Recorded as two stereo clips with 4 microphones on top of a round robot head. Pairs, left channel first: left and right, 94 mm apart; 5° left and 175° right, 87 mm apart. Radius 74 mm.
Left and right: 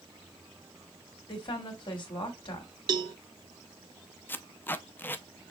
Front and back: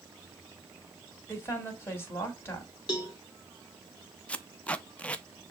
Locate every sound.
1.3 s a woman speaking: 65° left, 2 m
2.9 s a cowbell: 50° right, 0.6 m
4.3 s tape being pulled: 60° left, 0.5 m